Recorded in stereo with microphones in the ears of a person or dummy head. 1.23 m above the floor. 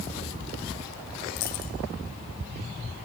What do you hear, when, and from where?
1.4 s a dropped coin: 35° left (ahead or behind), 0.7 m